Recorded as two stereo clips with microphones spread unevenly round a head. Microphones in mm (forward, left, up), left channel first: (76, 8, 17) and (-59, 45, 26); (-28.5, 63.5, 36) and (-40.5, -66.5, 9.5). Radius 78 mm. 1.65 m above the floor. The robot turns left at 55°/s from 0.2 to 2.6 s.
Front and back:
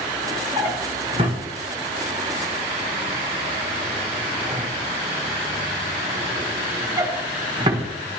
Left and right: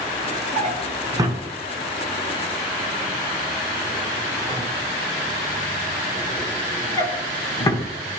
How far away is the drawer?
About 1.0 m.